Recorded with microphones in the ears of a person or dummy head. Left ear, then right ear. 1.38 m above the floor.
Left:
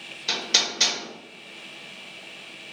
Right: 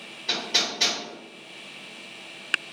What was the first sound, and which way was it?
Hammering, 30° left (ahead or behind).